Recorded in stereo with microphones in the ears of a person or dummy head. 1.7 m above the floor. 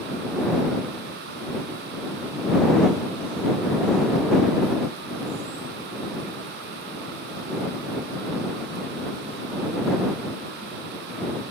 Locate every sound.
Only background noise.